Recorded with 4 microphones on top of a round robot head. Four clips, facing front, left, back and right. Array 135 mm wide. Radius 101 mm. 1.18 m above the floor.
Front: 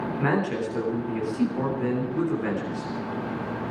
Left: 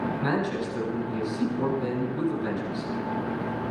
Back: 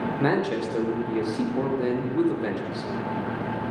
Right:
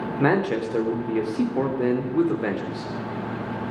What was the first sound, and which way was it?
A man speaking, 110° right.